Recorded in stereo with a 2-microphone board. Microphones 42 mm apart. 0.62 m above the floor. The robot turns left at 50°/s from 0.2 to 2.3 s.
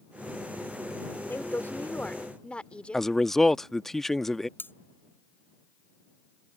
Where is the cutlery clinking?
60° left (ahead or behind).